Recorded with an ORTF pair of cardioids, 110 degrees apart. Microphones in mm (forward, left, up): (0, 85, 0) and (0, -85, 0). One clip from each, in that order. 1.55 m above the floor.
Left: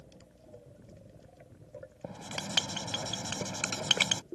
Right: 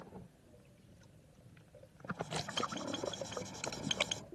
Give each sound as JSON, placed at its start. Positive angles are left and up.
{"t": 2.0, "sound": "writing", "azimuth_deg": 55}